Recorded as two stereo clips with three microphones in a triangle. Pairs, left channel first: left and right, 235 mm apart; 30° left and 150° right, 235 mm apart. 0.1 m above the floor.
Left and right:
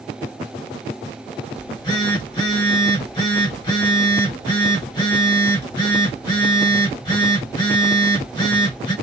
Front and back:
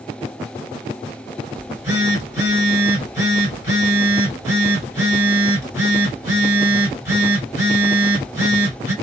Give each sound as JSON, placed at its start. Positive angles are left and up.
{"t": 1.6, "sound": "a phone buzzing", "azimuth_deg": 145, "distance_m": 2.0}